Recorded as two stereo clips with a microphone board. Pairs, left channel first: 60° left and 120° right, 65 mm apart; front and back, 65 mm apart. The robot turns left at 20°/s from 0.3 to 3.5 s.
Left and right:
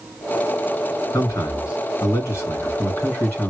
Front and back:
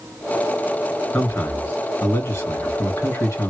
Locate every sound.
1.1 s a man speaking: 40° left, 2 m; by 3.5 s 5° right, 2 m